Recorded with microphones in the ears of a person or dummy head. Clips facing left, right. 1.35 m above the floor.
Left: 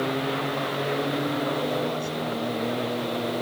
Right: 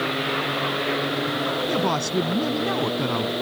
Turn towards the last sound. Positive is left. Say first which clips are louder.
# right 4 dB
turn(degrees=-85)